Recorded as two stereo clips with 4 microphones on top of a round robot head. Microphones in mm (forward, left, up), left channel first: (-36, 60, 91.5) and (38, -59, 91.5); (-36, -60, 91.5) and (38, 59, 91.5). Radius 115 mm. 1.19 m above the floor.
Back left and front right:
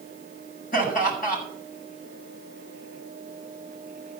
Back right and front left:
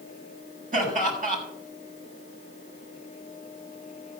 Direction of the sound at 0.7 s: 95° left.